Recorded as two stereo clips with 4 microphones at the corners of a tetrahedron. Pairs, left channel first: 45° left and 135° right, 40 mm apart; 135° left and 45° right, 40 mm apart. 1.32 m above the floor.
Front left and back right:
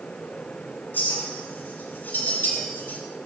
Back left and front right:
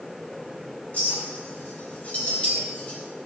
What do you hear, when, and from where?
0.9 s a clink: 80° left, 4 m